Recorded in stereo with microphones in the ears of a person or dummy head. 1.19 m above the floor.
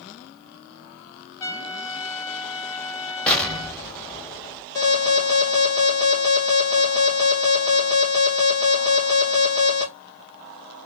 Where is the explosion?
5° left (ahead or behind), 0.8 m.